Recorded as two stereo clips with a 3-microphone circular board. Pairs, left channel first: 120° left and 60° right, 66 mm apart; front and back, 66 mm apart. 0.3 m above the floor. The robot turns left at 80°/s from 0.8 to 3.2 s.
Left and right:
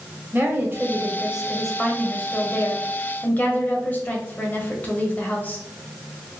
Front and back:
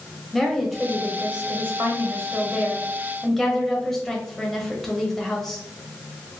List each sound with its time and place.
0.3 s a woman speaking: 85° right, 1.1 m; by 5.6 s 80° left, 1.1 m